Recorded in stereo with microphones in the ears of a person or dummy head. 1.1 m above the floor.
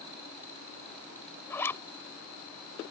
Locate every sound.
1.5 s a zipper: 20° left (ahead or behind)